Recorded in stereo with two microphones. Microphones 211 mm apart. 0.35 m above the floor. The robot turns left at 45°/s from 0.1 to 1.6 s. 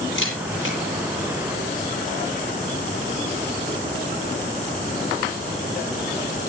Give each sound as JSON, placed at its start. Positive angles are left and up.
{"t": 0.1, "sound": "a camera shutter", "side_deg": 75, "distance_m": 7.0}